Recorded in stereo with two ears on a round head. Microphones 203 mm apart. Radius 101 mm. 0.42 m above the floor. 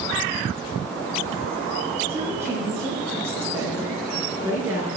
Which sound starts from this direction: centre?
A woman speaking, at 2.1 s.